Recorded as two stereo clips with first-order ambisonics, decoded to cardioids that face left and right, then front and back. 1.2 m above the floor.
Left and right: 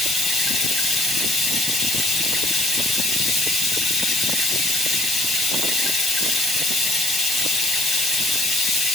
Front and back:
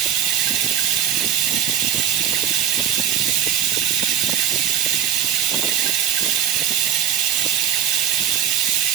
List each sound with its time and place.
0.0 s running water: 170° right, 6.5 m